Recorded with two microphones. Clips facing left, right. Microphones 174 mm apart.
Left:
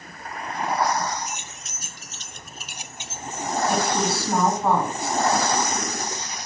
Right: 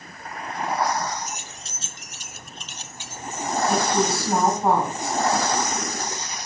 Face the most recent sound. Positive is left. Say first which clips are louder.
# right 2 dB
turn(degrees=-15)  # may be behind; listen again after turning